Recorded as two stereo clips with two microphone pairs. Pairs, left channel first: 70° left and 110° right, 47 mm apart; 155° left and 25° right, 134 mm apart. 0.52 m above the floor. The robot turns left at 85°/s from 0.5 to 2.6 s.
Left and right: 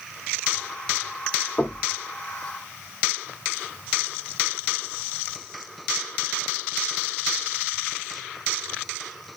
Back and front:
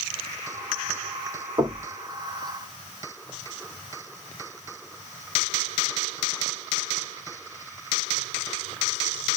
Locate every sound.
1.6 s knocking: 35° left, 1.1 m; by 1.8 s 10° left, 1.1 m